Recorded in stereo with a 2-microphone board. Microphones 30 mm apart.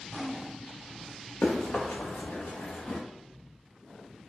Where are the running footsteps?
85° left, 1.5 m; by 3.0 s 40° left (ahead or behind), 1.1 m.